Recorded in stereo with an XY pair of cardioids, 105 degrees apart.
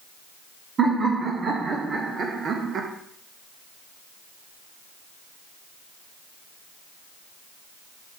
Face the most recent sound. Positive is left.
turn(degrees=-55)